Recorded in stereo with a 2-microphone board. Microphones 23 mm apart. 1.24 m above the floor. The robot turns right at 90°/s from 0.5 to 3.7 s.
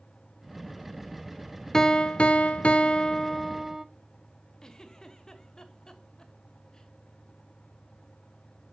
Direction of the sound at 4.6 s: 30° left (ahead or behind).